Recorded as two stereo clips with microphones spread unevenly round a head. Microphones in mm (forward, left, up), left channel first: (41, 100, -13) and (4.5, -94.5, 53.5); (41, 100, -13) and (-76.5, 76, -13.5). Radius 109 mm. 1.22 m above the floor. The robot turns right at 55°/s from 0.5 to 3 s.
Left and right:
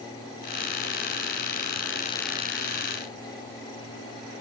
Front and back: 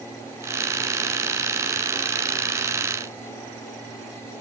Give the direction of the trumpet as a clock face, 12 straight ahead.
I don't hear a trumpet.